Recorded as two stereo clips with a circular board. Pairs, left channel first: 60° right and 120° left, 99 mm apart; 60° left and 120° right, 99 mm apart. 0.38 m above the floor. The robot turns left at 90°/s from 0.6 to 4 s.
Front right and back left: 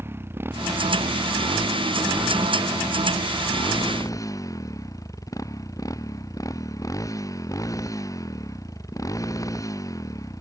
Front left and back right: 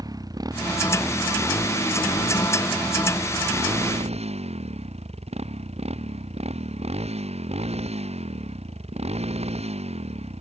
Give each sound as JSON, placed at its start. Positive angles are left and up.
{"t": 0.0, "sound": "a motorcycle", "azimuth_deg": -175}